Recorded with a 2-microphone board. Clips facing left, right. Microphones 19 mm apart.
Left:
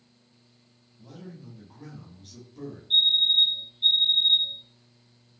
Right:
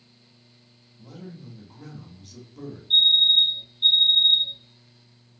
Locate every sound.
1.0 s a man speaking: 15° right (ahead or behind), 0.9 m
2.9 s a fire alarm: 15° right (ahead or behind), 1.8 m